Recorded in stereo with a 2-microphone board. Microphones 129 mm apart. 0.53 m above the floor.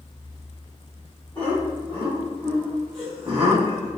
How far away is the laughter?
About 1.6 m.